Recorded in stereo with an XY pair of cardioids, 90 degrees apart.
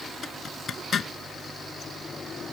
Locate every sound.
0.2 s a zipper: 55° left